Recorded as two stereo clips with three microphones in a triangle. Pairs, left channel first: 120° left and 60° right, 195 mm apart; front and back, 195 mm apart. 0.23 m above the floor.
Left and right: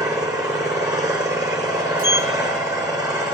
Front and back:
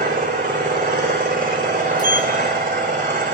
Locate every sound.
0.0 s an engine running: 130° right, 7 m
2.0 s a sliding door: 60° right, 1.6 m